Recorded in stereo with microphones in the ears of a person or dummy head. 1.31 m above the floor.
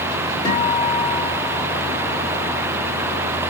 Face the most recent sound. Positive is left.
turn(degrees=25)  # may be behind; listen again after turning